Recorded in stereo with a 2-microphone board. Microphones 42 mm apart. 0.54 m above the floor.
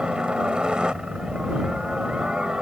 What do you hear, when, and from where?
0.0 s a helicopter: 25° right (ahead or behind)